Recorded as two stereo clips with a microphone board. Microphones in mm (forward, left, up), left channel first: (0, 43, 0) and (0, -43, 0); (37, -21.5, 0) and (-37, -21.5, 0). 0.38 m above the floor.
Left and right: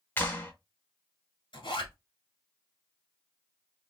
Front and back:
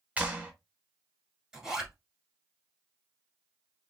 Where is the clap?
130° left, 1.0 m.